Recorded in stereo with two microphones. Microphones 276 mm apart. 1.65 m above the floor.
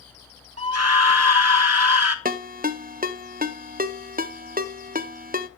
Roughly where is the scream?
Right.